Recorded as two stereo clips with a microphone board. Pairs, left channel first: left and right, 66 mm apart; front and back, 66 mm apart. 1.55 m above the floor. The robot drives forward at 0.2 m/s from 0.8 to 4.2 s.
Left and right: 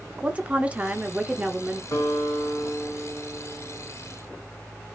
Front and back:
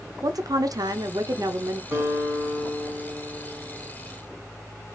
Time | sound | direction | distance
0.2 | a woman speaking | 160° right | 0.6 m
1.9 | a guitar | 125° left | 1.8 m